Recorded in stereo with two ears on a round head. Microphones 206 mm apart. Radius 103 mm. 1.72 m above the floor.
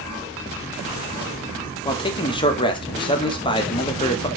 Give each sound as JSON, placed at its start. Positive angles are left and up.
{"t": 1.9, "sound": "a man speaking", "side_deg": 20, "distance_m": 0.7}